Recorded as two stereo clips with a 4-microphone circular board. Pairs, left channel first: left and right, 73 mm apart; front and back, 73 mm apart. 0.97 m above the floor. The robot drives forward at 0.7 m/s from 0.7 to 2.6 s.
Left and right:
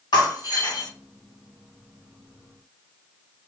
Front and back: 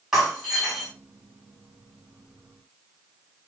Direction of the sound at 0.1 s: 95° left.